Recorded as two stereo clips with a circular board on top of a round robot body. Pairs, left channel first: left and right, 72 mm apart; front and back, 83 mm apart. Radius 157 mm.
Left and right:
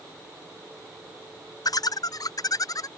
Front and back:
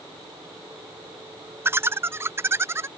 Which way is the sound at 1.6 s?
120° left.